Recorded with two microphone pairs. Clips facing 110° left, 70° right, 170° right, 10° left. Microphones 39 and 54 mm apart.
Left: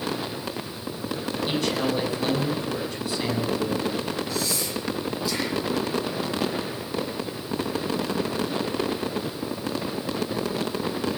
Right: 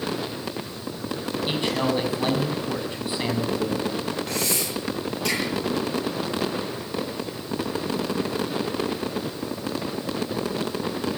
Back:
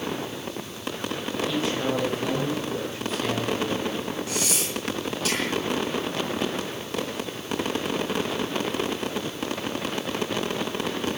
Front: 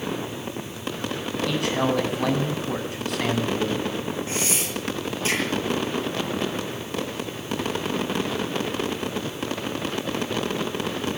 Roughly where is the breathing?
Ahead right.